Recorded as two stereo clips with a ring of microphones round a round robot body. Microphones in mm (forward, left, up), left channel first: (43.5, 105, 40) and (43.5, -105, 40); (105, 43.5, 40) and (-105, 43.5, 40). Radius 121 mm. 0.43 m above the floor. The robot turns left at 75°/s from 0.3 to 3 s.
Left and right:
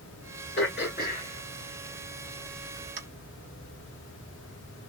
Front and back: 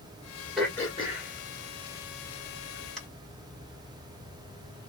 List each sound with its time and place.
0.6 s throat clearing: 95° left, 1.9 m; by 3.0 s 90° right, 1.9 m